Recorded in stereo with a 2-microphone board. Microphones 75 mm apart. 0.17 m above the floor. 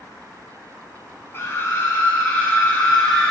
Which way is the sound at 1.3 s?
35° left (ahead or behind).